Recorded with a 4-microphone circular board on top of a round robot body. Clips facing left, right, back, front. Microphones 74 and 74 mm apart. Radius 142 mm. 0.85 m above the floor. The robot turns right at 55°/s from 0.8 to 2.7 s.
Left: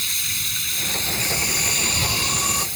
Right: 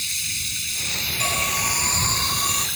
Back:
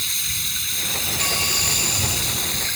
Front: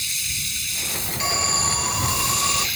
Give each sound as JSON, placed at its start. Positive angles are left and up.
{"t": 0.0, "sound": "running water", "azimuth_deg": 135}
{"t": 1.2, "sound": "an alarm", "azimuth_deg": -75}